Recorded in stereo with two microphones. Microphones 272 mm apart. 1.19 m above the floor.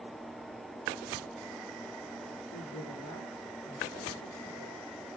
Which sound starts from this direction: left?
A woman speaking, at 2.5 s.